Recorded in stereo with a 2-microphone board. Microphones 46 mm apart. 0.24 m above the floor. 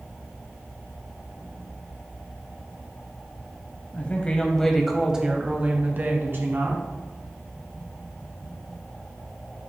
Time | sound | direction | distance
3.9 | a woman speaking | 35° left (ahead or behind) | 1.1 m